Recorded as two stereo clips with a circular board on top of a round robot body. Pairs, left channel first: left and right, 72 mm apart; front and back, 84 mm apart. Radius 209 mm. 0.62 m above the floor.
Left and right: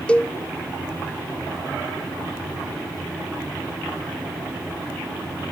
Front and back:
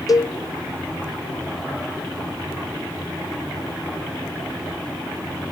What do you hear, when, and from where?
0.1 s a cowbell: 20° left, 0.5 m